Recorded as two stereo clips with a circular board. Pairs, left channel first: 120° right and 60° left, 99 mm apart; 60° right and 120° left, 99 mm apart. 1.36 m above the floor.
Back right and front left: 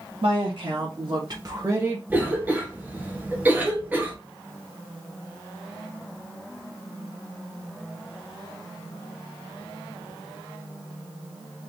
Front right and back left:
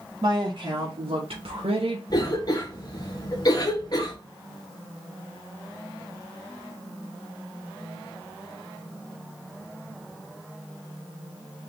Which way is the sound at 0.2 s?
75° left.